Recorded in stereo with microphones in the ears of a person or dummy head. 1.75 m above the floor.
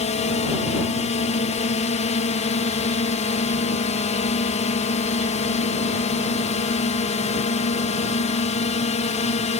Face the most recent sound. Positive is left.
turn(degrees=35)  # may be behind; listen again after turning